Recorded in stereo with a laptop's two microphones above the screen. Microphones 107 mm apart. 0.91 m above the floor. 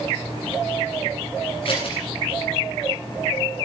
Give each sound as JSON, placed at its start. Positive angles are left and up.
{"t": 1.6, "sound": "scissors", "side_deg": 50, "distance_m": 8.5}